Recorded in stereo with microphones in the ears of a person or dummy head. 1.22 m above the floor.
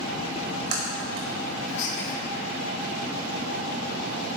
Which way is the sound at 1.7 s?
75° left (ahead or behind).